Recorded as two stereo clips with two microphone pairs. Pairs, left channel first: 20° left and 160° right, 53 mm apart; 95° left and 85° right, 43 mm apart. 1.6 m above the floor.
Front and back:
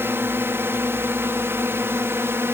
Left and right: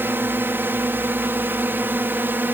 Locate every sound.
0.0 s a drone: 120° right; by 2.5 s 125° right